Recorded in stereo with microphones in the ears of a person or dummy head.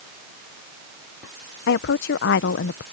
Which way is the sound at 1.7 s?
55° left (ahead or behind).